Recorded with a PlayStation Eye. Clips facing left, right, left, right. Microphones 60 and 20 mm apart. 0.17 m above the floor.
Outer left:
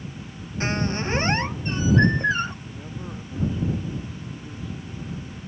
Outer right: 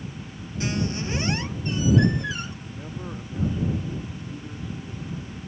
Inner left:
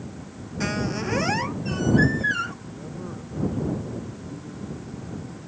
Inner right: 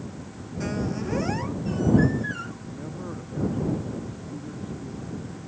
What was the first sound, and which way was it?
A squeak, 45° left (ahead or behind).